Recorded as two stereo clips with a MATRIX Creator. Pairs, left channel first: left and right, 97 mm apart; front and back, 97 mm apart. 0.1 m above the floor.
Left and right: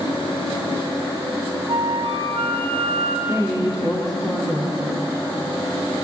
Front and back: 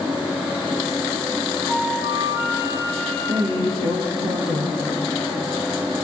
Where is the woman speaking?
175° left, 6 m.